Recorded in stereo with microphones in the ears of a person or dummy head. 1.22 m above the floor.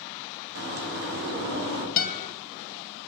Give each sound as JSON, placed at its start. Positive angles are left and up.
{"t": 0.6, "sound": "a bird", "side_deg": -60, "distance_m": 1.5}
{"t": 2.0, "sound": "a guitar", "side_deg": 45, "distance_m": 1.0}